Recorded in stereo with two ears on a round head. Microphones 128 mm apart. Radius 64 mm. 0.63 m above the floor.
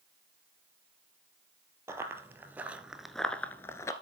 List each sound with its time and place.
1.9 s running footsteps: 20° right (ahead or behind), 1.1 m; by 3.9 s 20° left (ahead or behind), 0.7 m